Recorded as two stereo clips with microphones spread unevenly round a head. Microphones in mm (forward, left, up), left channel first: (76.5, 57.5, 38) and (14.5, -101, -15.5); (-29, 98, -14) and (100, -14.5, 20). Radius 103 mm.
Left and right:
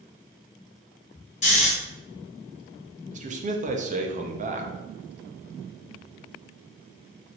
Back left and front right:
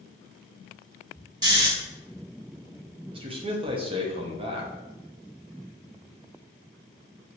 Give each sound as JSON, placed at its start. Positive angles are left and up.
{"t": 1.4, "sound": "snoring", "azimuth_deg": 25, "distance_m": 2.5}
{"t": 3.1, "sound": "a man speaking", "azimuth_deg": -60, "distance_m": 0.8}